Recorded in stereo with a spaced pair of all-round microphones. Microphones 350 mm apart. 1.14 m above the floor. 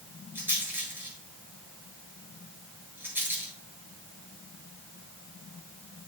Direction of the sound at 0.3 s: 5° right (ahead or behind).